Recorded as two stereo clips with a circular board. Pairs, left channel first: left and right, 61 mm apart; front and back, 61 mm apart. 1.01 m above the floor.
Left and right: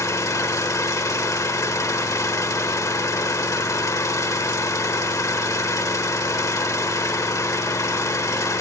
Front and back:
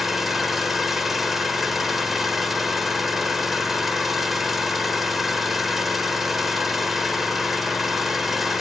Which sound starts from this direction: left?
An engine running, at 0.0 s.